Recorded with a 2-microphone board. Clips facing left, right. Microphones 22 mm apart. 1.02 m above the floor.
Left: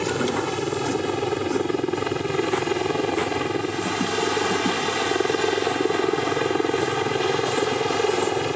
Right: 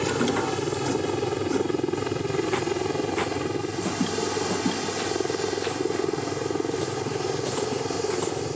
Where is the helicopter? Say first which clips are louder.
Left 1 dB; 15° left (ahead or behind); by 8.6 s 55° left (ahead or behind).